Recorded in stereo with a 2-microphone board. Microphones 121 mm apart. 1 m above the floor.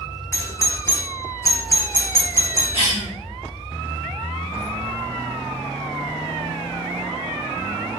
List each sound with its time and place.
0.3 s a doorbell: 20° left (ahead or behind), 0.6 m
2.7 s a cough: 45° left (ahead or behind), 1.7 m